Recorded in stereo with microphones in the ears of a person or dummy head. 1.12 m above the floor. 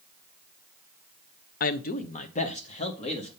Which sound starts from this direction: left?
A man speaking, at 1.6 s.